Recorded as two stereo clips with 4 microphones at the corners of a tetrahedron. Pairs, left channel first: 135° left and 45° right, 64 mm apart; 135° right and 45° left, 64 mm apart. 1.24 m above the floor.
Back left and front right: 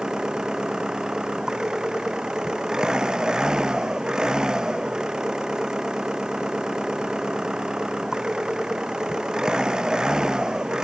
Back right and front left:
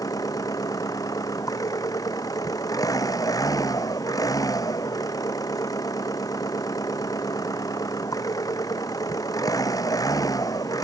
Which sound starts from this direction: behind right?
An engine running, at 0.0 s.